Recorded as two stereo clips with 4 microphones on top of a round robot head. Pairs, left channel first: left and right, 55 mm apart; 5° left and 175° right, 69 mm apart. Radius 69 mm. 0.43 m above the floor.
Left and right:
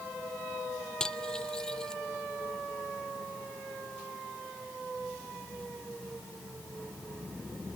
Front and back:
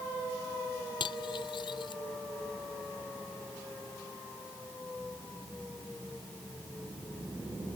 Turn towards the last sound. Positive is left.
turn(degrees=10)